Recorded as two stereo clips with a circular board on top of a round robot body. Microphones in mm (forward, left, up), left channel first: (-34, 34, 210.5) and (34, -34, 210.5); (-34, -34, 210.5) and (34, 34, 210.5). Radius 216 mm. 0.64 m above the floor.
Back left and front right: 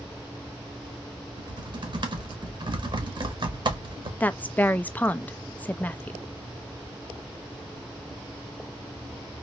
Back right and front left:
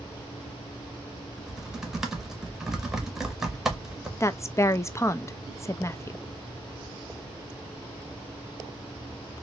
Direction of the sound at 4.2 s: 165° right.